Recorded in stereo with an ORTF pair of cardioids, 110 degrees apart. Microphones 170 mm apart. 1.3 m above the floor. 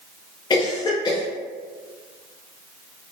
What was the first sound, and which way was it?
A cough, 25° left.